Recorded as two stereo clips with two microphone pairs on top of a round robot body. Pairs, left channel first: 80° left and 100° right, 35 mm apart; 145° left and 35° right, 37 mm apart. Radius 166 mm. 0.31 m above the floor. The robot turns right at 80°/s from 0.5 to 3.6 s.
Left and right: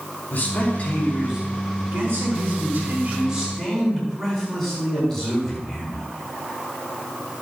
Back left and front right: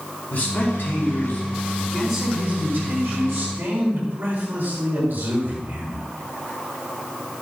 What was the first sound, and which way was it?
A man speaking, 115° left.